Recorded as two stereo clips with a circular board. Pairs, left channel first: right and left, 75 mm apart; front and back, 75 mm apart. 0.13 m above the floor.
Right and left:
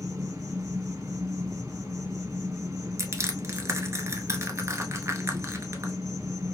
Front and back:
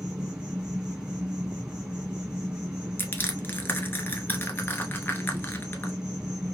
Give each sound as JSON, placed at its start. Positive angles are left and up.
{"t": 0.0, "sound": "an insect", "azimuth_deg": 100, "distance_m": 3.0}
{"t": 3.0, "sound": "crushing", "azimuth_deg": 55, "distance_m": 0.7}